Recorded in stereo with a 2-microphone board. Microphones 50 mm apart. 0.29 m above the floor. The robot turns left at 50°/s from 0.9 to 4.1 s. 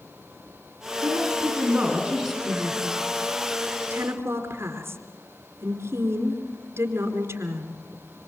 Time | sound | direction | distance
1.0 | a woman speaking | 120° right | 9.5 m
2.5 | a woman speaking | 15° left (ahead or behind) | 4.5 m